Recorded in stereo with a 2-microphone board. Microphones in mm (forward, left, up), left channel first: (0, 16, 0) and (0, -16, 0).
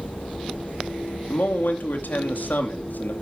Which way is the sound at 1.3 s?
75° left (ahead or behind).